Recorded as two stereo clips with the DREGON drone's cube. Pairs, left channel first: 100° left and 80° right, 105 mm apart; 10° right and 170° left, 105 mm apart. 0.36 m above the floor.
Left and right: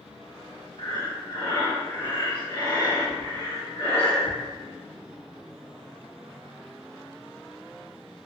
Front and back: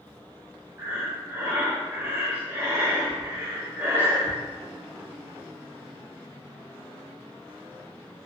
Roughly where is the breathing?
Left.